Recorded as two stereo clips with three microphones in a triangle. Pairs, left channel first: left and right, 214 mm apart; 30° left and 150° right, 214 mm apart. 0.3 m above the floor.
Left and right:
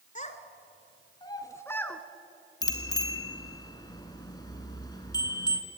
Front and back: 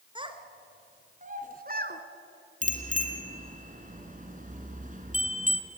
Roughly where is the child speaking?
Behind left.